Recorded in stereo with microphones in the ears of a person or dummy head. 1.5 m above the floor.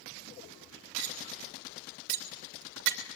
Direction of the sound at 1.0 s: 70° right (ahead or behind).